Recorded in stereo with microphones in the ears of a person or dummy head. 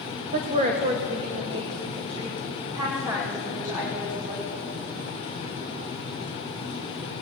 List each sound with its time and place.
0.3 s a woman speaking: 45° right (ahead or behind), 0.9 m; by 4.6 s 20° right (ahead or behind), 3 m